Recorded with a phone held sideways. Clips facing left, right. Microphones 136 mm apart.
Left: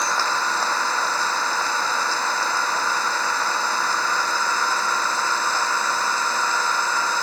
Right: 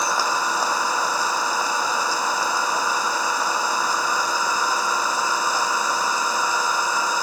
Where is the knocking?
I don't hear knocking.